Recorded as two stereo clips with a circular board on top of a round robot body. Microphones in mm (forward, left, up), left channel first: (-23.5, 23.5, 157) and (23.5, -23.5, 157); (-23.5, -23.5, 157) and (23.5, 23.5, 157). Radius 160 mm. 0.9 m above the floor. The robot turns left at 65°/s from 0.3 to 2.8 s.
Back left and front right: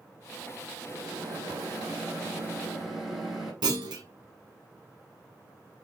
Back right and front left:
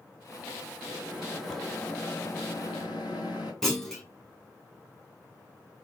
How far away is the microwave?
About 3.5 m.